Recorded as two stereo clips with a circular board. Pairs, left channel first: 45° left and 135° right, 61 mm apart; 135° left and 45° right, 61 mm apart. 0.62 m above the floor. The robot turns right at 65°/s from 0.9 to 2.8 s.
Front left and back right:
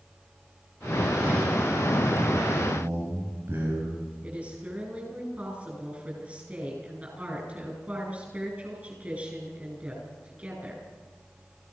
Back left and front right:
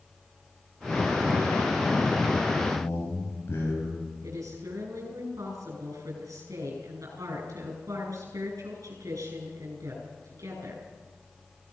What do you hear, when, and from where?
2.6 s a man speaking: 160° left, 5 m; by 4.0 s 175° left, 5 m
4.2 s a woman speaking: 70° right, 9 m